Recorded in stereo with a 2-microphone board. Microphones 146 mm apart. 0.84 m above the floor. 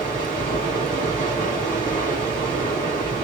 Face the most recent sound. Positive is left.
turn(degrees=70)  # may be behind; listen again after turning